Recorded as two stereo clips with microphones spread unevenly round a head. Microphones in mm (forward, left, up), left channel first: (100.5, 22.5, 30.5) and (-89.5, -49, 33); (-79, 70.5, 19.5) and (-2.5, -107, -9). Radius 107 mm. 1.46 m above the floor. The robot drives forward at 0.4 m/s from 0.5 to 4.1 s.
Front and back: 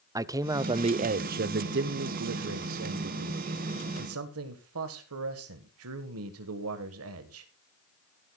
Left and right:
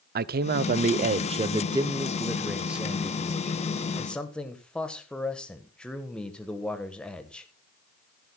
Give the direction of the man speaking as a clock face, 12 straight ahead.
3 o'clock.